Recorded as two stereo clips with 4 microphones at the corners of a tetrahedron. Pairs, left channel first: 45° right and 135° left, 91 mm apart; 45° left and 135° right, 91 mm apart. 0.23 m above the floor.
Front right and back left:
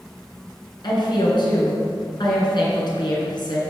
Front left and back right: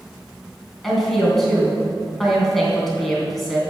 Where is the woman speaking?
45° right, 3 m.